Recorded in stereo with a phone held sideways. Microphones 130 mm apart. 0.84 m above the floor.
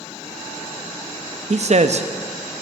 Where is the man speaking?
60° right (ahead or behind), 0.6 m.